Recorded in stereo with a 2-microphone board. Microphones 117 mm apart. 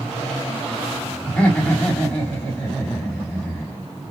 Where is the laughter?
15° left (ahead or behind), 1.3 m.